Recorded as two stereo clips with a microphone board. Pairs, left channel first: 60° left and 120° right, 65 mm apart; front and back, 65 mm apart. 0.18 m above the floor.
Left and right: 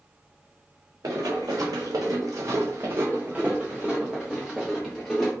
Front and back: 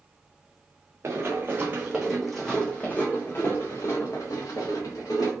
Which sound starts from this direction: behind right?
Running footsteps, at 1.0 s.